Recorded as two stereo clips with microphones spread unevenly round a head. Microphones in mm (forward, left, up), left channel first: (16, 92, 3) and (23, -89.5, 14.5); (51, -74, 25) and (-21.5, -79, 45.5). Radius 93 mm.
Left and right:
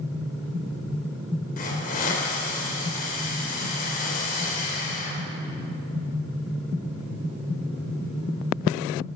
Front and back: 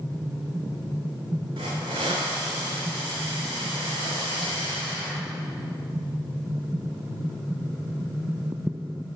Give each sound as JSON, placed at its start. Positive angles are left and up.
{"t": 1.6, "sound": "a hiss", "azimuth_deg": 140, "distance_m": 2.5}